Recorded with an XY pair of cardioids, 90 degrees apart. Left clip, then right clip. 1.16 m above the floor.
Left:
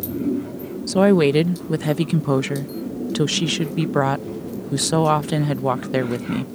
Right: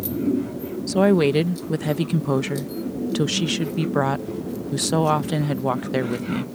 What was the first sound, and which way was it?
A woman speaking, 25° left.